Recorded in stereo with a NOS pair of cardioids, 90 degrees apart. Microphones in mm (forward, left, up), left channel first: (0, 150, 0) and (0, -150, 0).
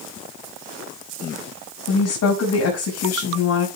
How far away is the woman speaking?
About 6 m.